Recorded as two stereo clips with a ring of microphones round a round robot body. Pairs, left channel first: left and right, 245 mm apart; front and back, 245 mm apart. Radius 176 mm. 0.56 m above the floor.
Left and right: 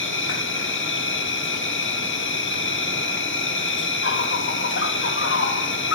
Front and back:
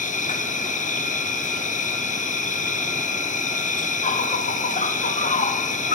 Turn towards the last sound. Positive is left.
turn(degrees=60)